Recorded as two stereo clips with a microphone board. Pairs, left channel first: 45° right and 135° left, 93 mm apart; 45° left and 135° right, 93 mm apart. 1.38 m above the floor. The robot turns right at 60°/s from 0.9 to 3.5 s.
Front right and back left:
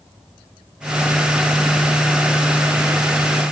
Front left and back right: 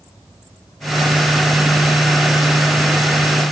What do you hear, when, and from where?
Only background noise.